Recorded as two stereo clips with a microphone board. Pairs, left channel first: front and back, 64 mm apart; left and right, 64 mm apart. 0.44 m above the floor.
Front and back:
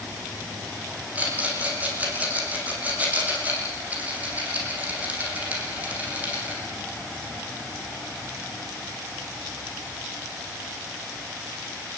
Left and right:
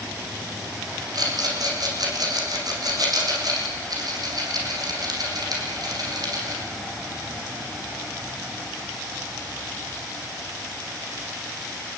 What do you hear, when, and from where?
1.1 s a rattle: 110° right, 8 m